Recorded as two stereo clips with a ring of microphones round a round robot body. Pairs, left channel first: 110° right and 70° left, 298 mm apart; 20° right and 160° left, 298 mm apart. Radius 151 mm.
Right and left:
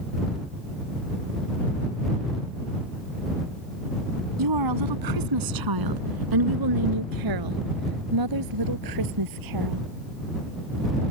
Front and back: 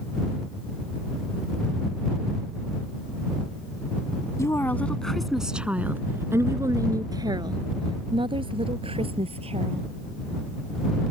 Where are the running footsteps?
I don't hear running footsteps.